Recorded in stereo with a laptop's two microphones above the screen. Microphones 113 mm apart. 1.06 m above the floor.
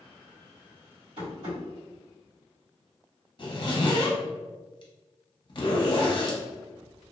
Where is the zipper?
45° left (ahead or behind), 0.7 m.